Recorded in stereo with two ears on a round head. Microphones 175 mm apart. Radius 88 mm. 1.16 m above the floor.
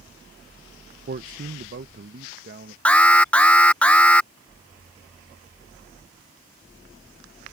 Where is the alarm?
5° left (ahead or behind).